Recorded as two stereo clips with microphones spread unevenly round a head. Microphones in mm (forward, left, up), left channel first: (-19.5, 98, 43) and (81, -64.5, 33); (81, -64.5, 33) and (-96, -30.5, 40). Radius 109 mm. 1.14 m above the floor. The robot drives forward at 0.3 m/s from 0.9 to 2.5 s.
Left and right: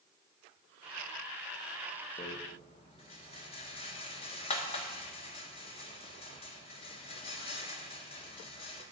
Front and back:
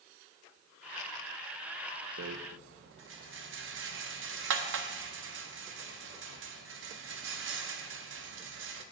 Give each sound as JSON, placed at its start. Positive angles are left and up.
{"t": 2.2, "sound": "a rattle", "azimuth_deg": -170, "distance_m": 0.5}